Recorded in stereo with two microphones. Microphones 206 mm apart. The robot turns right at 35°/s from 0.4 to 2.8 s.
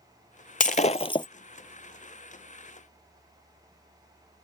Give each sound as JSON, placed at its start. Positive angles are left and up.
{"t": 0.6, "sound": "breaking glass", "side_deg": 45}